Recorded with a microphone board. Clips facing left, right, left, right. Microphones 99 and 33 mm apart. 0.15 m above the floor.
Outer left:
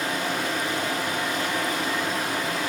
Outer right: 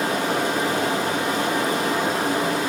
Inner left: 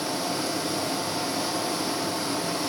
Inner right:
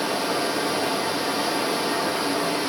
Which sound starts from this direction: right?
Running water, at 0.0 s.